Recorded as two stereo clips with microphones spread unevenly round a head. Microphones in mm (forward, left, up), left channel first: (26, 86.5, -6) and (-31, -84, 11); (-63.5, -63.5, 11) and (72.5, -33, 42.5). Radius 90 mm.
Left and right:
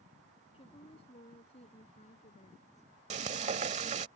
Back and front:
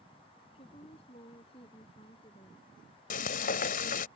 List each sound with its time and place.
0.5 s a woman speaking: 135° left; by 2.9 s 125° left
3.1 s frying: 145° right